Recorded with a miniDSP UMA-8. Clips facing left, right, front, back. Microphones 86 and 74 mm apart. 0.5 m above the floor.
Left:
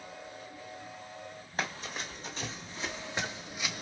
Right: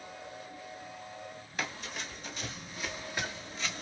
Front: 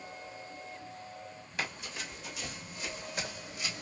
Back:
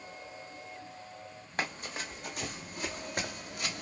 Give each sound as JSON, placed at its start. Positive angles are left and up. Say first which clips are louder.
{"t": 1.6, "sound": "running footsteps", "louder": "left 2 dB, back 3 dB", "azimuth_deg": 135, "distance_m": 1.8}